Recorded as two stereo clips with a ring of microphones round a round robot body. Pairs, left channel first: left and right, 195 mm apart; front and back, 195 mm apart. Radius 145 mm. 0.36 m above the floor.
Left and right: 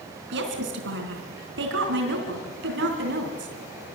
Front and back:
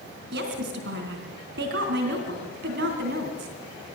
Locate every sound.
0.3 s a woman speaking: 130° right, 3.5 m